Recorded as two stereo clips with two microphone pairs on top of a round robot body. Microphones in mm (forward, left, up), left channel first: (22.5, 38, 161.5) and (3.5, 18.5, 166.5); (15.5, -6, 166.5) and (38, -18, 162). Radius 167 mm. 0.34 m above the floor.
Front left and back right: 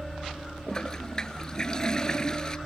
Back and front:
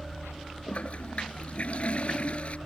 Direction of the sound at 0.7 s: 110° left.